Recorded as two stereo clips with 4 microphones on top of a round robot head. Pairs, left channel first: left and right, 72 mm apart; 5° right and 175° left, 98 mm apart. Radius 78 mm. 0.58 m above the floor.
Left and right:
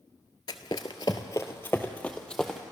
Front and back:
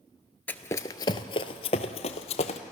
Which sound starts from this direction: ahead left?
Running footsteps, at 0.5 s.